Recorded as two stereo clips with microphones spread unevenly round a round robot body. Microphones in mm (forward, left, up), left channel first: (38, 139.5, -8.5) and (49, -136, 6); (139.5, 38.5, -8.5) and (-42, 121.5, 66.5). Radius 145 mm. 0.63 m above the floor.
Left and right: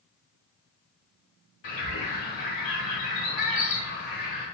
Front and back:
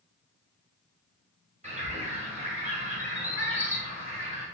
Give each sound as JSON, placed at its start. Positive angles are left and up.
{"t": 1.6, "sound": "a bird", "azimuth_deg": 95, "distance_m": 2.0}